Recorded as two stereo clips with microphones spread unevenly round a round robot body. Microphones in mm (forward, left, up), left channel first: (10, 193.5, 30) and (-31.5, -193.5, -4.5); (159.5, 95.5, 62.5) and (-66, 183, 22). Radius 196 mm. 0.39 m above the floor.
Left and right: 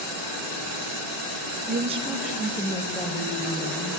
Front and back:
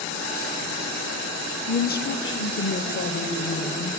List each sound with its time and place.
1.7 s a woman speaking: 75° right, 1.1 m; by 4.0 s 15° left, 3 m